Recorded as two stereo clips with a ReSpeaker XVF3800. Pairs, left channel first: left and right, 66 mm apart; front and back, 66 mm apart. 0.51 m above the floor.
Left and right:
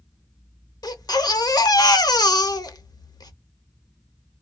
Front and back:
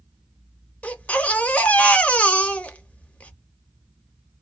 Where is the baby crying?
70° left, 0.5 m.